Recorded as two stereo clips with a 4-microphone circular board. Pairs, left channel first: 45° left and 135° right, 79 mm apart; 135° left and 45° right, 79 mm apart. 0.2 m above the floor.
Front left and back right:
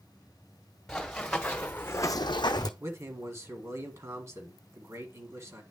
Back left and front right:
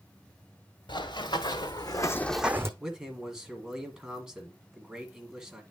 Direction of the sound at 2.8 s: 120° right.